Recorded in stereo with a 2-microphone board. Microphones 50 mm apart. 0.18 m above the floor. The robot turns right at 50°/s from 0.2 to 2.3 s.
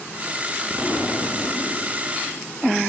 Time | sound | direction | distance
0.7 | an explosion | 15° left | 4 m